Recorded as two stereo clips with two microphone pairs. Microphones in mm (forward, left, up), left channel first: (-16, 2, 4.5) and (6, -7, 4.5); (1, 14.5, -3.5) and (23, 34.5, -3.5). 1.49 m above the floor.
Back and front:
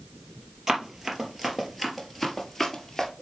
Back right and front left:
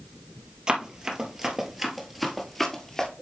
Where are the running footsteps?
25° left, 1.6 m; by 3.1 s 175° left, 1.5 m.